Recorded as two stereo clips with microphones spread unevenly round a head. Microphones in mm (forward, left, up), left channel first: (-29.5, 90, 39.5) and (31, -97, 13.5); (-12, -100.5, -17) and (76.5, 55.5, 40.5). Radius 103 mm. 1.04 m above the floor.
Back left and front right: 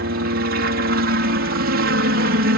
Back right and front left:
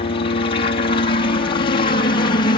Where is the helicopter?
85° right; by 2.6 s 80° right.